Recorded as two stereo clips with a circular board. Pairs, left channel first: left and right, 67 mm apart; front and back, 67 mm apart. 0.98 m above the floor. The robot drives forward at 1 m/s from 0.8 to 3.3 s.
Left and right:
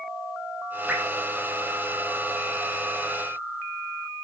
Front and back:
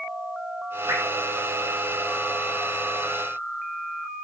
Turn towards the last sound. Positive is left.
turn(degrees=-170)